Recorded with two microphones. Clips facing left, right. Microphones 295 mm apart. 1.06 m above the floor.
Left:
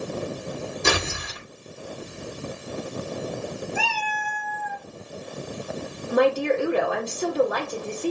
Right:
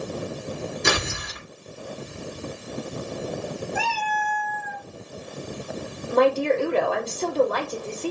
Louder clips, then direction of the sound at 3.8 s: Right 2 dB; 5° left (ahead or behind).